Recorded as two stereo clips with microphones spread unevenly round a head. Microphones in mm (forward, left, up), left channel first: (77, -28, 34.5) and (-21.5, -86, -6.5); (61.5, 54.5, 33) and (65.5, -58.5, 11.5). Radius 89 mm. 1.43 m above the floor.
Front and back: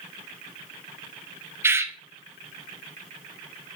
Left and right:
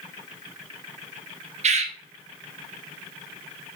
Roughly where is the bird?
Right.